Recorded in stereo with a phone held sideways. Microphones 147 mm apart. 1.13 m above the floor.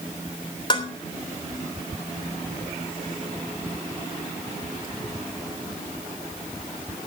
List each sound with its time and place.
0.7 s dishes clattering: 30° left (ahead or behind), 3 m